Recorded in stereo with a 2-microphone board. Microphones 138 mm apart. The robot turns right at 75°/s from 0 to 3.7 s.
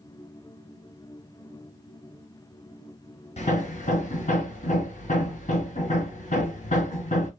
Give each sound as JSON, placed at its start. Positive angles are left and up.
{"t": 3.4, "sound": "hammering", "side_deg": 50, "distance_m": 1.5}